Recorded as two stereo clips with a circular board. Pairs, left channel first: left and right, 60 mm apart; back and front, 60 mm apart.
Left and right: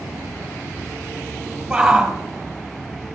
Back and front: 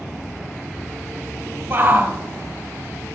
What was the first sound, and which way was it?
A shout, 15° right.